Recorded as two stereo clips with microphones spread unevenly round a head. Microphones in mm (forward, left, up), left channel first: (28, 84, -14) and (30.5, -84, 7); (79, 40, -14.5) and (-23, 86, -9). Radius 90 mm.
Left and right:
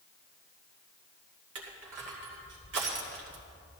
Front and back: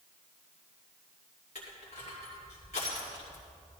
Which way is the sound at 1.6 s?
80° right.